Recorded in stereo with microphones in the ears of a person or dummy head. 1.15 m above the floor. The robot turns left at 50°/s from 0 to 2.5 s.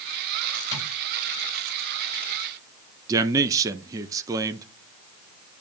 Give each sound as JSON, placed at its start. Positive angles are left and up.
{"t": 0.7, "sound": "tapping", "side_deg": 20, "distance_m": 6.5}
{"t": 3.1, "sound": "a man speaking", "side_deg": -20, "distance_m": 0.5}